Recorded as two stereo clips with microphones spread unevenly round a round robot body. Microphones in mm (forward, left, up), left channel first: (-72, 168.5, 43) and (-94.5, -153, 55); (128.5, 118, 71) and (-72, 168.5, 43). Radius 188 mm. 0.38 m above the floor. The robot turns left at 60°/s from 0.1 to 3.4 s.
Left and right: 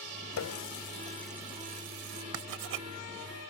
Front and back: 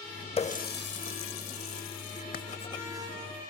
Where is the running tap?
50° left; by 2.2 s 60° right.